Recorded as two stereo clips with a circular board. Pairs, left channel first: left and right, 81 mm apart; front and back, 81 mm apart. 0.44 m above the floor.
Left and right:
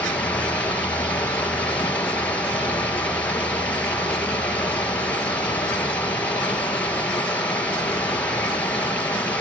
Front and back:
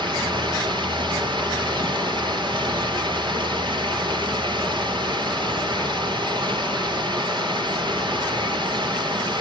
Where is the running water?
160° left, 4 m.